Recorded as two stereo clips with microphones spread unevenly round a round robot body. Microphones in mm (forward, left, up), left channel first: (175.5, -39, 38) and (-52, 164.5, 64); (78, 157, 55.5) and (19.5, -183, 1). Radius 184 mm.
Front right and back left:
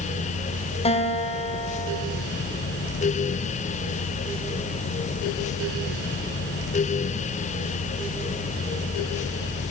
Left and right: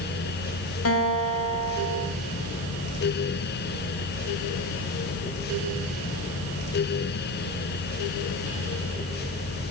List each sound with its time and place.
0.8 s a guitar: 30° left, 3 m